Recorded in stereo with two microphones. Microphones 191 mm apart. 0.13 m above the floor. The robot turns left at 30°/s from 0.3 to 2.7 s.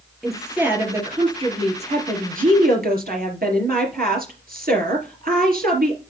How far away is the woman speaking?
About 3 m.